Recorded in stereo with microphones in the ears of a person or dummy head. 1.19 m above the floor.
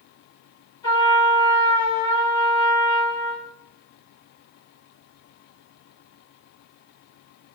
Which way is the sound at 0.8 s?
20° left (ahead or behind).